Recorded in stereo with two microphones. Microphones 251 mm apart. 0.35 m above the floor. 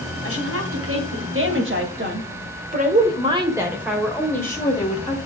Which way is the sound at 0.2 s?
60° right (ahead or behind).